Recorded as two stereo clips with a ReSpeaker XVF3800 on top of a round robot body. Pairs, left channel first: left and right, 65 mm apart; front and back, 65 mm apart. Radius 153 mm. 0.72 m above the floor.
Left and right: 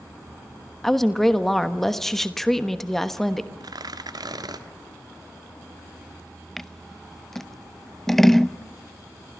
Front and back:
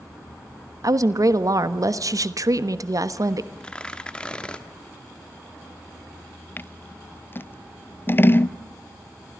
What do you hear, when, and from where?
0.8 s a woman speaking: 175° left, 1.4 m
3.6 s tearing paper: 75° right, 1.6 m
6.6 s scissors: 5° left, 0.8 m